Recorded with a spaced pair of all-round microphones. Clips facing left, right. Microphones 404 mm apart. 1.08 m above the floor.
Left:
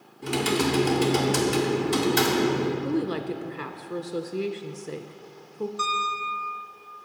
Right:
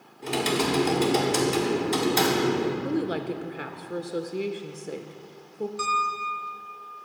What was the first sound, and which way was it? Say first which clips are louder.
Typing on a keyboard: left 1 dB; 25° left (ahead or behind).